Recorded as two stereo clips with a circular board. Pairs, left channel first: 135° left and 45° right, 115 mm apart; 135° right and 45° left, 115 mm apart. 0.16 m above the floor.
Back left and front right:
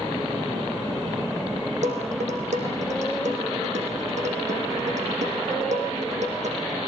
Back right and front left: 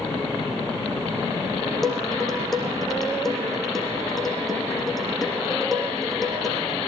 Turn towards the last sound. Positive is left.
turn(degrees=-45)